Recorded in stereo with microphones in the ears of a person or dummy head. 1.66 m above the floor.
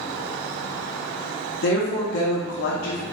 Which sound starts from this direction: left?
A woman speaking, at 1.6 s.